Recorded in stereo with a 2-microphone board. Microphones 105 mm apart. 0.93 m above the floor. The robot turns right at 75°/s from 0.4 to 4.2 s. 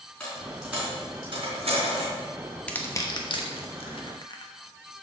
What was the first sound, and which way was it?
A dropped coin, 10° left (ahead or behind).